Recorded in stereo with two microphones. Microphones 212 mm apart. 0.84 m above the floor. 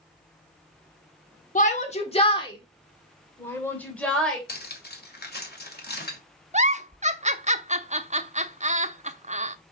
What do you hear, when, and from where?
1.6 s a shout: 40° left (ahead or behind), 2 m; by 4.4 s 5° left (ahead or behind), 3.5 m
4.5 s cutlery clinking: 50° left (ahead or behind), 1.7 m
6.5 s a giggle: 35° right (ahead or behind), 0.6 m